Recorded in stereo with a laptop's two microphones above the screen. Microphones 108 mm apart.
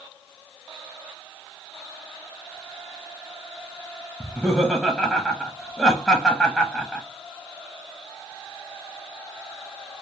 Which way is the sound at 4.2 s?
Centre (ahead or behind).